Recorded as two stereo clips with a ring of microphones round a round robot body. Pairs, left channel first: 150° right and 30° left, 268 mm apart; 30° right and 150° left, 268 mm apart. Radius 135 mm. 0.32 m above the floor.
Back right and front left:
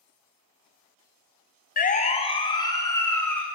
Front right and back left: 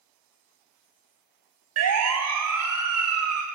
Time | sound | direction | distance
1.8 | a siren | 155° left | 2.5 m